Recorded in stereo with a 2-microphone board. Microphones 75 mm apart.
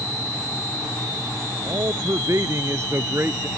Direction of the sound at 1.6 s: 50° right (ahead or behind).